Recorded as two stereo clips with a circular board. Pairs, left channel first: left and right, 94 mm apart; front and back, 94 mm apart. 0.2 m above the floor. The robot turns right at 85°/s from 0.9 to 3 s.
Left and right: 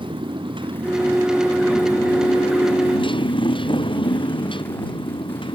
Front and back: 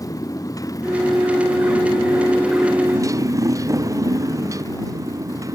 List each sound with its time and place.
0.0 s a motorcycle: 55° right; by 5.6 s 125° left